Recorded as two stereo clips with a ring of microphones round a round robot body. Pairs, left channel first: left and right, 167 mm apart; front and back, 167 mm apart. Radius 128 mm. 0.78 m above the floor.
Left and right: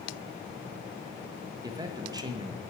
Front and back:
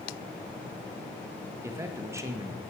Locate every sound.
1.6 s a man speaking: 125° right, 0.8 m